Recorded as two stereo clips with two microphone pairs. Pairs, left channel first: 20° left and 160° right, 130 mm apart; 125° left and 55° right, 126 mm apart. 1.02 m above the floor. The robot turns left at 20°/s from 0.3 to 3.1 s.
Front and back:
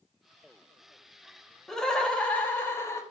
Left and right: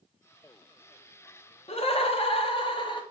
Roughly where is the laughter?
Left.